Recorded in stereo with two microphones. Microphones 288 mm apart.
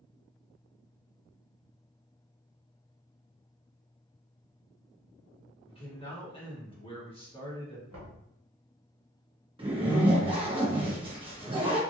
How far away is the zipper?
About 1.0 m.